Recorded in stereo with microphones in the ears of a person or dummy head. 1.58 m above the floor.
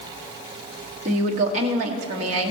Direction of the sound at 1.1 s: 40° right (ahead or behind).